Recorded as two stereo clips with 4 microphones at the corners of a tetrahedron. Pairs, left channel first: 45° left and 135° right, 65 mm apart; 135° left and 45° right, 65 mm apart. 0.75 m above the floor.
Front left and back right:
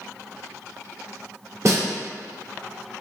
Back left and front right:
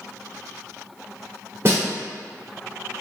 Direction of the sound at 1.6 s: 95° right.